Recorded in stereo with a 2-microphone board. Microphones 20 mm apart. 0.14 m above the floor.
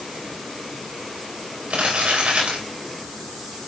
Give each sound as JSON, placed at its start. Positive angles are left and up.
{"t": 1.7, "sound": "crumpling", "side_deg": -80, "distance_m": 5.0}